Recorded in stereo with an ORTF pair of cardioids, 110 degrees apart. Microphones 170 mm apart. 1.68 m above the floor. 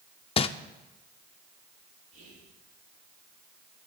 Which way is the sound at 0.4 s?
35° left.